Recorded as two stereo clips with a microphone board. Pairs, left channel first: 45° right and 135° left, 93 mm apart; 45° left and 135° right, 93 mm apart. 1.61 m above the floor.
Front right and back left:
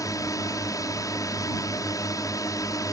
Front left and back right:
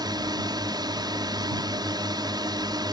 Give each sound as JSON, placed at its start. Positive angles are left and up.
{"t": 0.0, "sound": "a drone", "azimuth_deg": -95}